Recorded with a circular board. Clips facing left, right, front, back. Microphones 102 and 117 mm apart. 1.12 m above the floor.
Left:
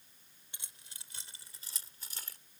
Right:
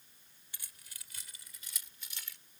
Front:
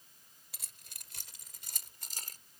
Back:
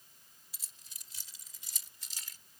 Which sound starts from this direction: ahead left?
Keys jangling, at 0.5 s.